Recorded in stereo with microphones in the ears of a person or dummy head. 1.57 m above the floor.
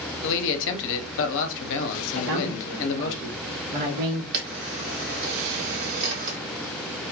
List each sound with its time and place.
0.2 s a man speaking: 65° left (ahead or behind), 0.6 m
2.1 s a man speaking: 50° right (ahead or behind), 0.8 m
4.3 s a camera shutter: 55° right (ahead or behind), 1.2 m